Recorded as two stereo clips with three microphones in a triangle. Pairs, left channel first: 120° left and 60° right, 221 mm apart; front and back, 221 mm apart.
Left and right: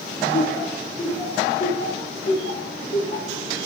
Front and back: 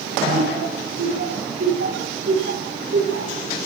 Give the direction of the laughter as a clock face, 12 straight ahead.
6 o'clock.